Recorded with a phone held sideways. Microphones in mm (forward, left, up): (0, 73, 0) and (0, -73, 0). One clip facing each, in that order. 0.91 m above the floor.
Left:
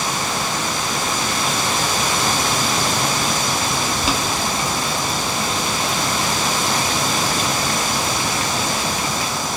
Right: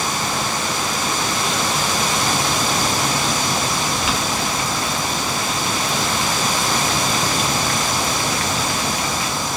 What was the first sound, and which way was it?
Boiling, 30° left (ahead or behind).